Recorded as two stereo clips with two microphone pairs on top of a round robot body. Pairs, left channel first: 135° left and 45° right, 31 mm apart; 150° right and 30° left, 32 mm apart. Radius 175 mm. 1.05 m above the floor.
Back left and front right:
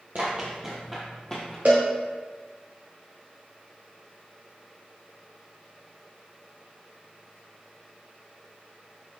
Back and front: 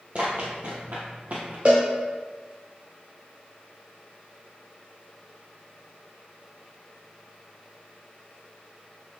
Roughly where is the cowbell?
Ahead.